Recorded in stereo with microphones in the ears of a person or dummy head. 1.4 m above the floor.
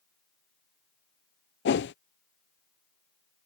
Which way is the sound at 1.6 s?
55° left (ahead or behind).